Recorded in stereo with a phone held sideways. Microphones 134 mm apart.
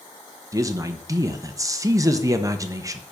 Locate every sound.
0.5 s a man speaking: 25° right (ahead or behind), 0.7 m